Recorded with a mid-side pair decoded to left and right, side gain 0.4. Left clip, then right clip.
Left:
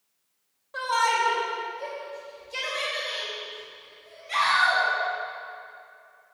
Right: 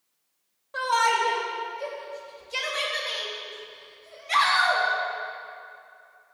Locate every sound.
0.7 s a shout: 20° right, 3.5 m; by 4.8 s 60° right, 4 m